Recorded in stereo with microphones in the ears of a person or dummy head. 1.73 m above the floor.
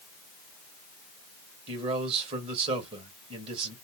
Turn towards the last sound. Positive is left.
turn(degrees=-35)  # may be behind; listen again after turning